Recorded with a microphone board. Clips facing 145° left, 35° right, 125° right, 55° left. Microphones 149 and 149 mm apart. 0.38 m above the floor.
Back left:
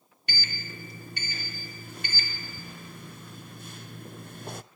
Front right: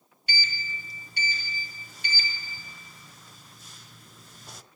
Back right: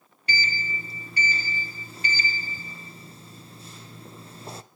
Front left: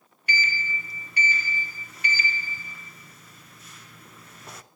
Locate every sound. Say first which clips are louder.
0.3 s a sliding door: front right 2 dB, even; 175° left, 0.7 m